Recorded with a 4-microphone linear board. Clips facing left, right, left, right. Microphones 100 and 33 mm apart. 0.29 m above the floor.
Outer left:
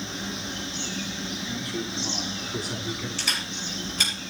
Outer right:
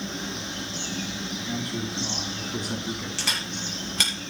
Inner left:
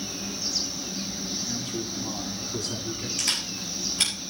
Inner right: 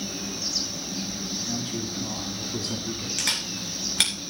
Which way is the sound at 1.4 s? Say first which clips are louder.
Outer right 2 dB, inner right 1 dB; 35° right (ahead or behind).